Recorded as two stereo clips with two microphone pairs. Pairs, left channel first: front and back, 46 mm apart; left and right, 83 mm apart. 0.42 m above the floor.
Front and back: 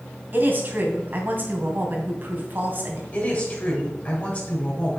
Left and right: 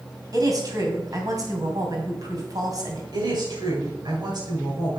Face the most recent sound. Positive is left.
turn(degrees=-60)